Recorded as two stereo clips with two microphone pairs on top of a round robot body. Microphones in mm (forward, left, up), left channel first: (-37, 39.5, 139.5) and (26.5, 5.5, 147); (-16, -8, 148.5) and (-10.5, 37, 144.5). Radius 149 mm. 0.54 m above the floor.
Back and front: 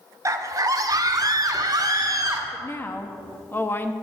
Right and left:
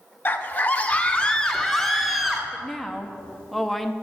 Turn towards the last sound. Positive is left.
turn(degrees=170)